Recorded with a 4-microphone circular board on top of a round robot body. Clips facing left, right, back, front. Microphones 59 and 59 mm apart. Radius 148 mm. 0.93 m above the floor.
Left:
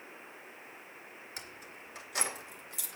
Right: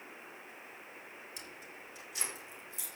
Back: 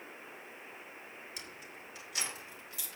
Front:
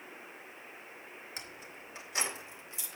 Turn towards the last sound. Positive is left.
turn(degrees=65)